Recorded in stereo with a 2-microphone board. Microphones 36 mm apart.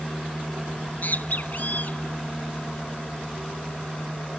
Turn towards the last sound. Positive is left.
turn(degrees=55)  # may be behind; listen again after turning